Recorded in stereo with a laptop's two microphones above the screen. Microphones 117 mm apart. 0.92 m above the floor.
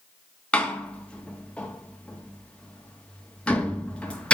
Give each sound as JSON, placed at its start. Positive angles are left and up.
{"t": 0.5, "sound": "a door slam", "side_deg": 10, "distance_m": 0.8}